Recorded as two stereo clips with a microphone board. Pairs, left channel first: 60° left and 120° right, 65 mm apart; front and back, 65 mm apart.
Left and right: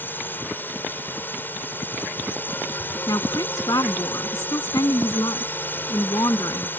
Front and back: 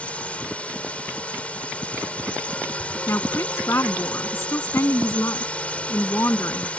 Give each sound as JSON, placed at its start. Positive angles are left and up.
{"t": 0.0, "sound": "a drone", "azimuth_deg": 50}
{"t": 3.1, "sound": "a woman speaking", "azimuth_deg": 45}